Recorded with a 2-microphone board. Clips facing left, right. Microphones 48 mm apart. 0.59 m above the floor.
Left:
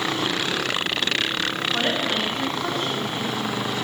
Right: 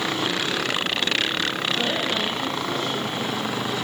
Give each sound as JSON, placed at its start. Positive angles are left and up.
{"t": 1.7, "sound": "a woman speaking", "side_deg": 55, "distance_m": 6.0}